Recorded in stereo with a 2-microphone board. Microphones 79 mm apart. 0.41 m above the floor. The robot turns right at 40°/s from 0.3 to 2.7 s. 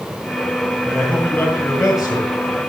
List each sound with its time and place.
0.8 s a man speaking: straight ahead, 7.5 m; by 2.3 s 60° left, 7.5 m